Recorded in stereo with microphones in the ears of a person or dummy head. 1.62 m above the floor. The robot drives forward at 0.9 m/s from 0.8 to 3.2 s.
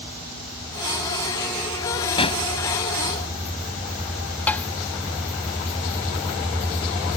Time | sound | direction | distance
2.2 | a pop | 35° left (ahead or behind) | ?
4.5 | tapping | 10° left (ahead or behind) | ?